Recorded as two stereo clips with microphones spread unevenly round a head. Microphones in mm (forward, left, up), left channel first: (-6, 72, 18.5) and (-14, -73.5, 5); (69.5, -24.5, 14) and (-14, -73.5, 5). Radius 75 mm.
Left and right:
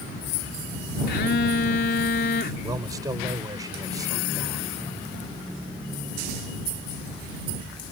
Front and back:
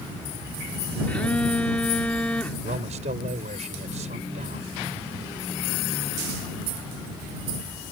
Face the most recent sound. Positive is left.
turn(degrees=-160)